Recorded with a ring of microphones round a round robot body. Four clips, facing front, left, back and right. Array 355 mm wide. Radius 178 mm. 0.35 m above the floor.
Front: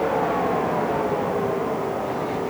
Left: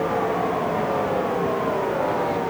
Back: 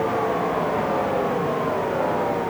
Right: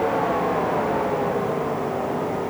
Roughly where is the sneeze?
No sneeze in this recording.